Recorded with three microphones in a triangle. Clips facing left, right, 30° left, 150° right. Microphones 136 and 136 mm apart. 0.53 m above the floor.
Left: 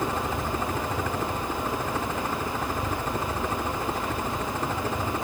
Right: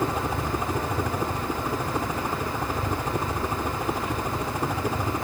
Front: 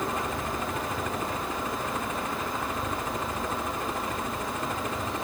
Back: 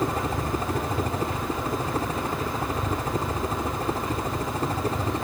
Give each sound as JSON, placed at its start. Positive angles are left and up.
{"t": 0.0, "sound": "a helicopter", "azimuth_deg": -160}